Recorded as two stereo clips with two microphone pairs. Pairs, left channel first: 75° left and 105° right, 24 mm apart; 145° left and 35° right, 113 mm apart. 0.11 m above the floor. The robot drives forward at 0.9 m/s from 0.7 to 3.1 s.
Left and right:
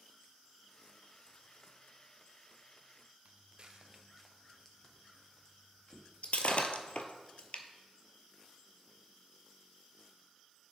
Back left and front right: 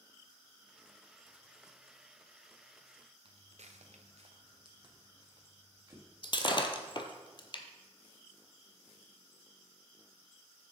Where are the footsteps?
75° right, 1.1 m; by 7.0 s 30° left, 4.5 m.